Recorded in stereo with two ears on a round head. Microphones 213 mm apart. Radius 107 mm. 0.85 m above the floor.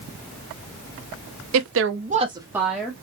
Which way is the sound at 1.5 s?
65° right (ahead or behind).